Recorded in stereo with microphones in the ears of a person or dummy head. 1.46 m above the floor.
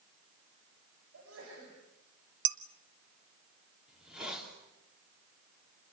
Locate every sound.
1.1 s a sneeze: 80° right, 7 m
2.5 s dishes clattering: 60° right (ahead or behind), 0.8 m
3.9 s a hiss: 5° right (ahead or behind), 4 m